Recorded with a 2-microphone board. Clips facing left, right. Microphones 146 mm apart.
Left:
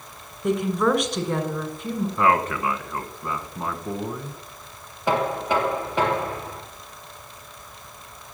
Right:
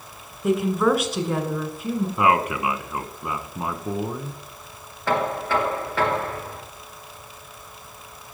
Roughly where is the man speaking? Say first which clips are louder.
Even; centre.